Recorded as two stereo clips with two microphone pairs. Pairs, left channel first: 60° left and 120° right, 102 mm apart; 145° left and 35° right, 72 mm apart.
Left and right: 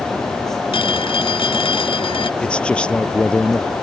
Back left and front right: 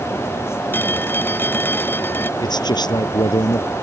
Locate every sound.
0.7 s a phone ringing: 85° left
2.4 s a man speaking: 135° left